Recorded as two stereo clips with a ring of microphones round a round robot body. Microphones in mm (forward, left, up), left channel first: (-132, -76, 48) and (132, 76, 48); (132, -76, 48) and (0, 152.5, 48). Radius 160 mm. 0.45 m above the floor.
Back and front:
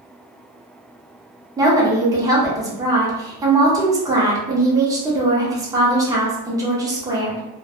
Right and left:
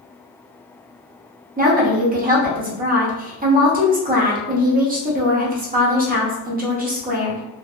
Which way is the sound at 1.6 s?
100° left.